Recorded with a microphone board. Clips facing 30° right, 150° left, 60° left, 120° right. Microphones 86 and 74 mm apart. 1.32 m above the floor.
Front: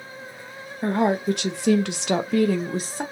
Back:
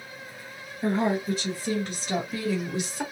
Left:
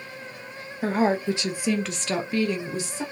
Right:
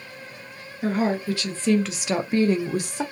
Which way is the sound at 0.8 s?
5° left.